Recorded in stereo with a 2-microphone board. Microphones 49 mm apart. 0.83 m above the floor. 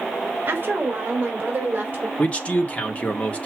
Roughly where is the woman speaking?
Right.